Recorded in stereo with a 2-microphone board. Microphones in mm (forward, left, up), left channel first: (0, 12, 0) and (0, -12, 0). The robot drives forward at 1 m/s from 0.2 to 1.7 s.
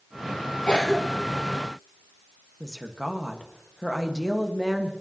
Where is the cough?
35° left (ahead or behind), 0.8 m; by 1.4 s 20° left (ahead or behind), 1.5 m.